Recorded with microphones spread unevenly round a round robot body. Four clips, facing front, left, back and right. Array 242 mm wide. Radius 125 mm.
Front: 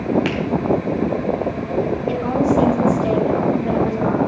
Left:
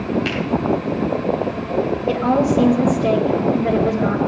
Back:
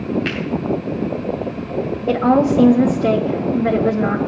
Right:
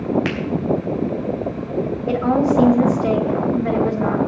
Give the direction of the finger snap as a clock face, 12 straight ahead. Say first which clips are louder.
Even, front 2 dB; 1 o'clock.